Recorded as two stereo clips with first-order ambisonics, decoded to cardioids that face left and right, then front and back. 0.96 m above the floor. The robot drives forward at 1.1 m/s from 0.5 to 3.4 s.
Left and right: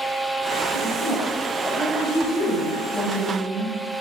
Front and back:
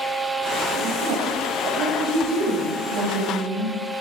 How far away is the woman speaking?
About 4 m.